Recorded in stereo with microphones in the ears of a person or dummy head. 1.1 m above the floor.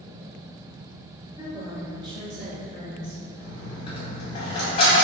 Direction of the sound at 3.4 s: 30° left (ahead or behind).